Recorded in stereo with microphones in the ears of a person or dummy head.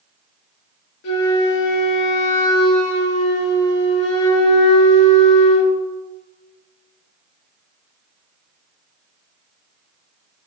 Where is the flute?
65° left (ahead or behind), 1.6 m.